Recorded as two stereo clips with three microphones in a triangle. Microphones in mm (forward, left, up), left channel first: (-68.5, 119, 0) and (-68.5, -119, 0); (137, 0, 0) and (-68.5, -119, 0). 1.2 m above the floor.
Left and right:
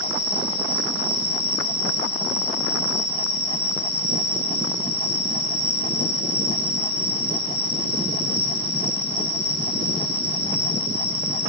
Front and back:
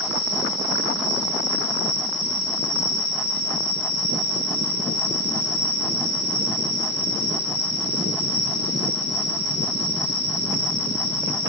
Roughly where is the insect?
Left.